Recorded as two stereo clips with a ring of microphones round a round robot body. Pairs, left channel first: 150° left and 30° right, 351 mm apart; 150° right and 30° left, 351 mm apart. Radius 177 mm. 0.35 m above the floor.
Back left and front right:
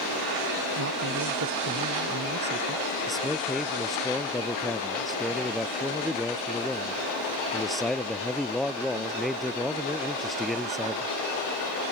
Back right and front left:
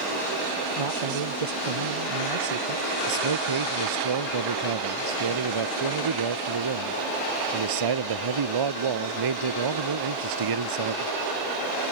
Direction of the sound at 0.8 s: 25° left.